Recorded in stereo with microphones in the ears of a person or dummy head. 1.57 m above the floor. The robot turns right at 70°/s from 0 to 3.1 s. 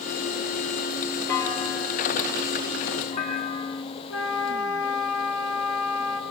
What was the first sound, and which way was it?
A clunk, 10° left.